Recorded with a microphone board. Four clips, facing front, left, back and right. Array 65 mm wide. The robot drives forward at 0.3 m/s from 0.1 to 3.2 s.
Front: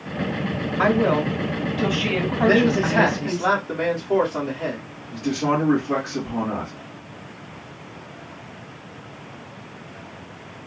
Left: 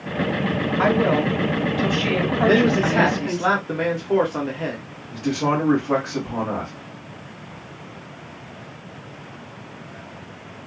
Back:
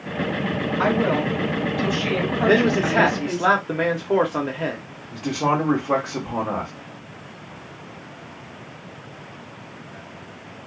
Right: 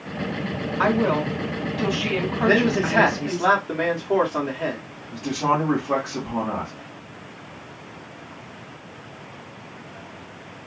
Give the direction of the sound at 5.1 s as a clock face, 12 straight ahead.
6 o'clock.